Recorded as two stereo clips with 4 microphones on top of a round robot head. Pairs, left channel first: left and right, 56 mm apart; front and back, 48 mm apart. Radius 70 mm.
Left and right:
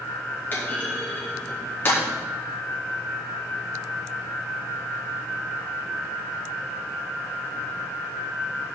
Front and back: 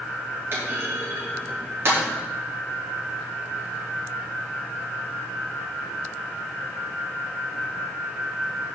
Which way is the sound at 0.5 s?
145° left.